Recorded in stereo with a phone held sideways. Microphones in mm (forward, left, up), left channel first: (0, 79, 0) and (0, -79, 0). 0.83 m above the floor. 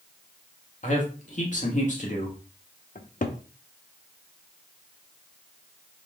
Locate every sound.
0.8 s a man speaking: 55° left (ahead or behind), 1.6 m
3.0 s a cupboard door: 60° left (ahead or behind), 0.6 m